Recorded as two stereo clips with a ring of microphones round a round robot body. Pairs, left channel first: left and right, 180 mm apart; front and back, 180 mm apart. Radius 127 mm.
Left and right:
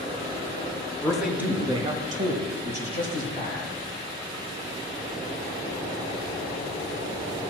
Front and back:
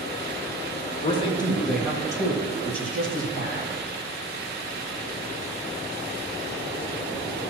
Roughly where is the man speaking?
Ahead.